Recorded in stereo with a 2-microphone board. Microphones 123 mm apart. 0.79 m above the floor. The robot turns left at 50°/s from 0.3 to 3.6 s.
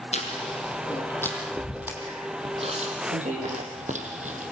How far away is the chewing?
About 5 m.